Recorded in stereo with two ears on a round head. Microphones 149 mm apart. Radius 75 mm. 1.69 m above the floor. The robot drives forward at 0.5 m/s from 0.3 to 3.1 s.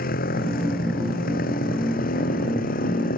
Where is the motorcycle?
55° left (ahead or behind).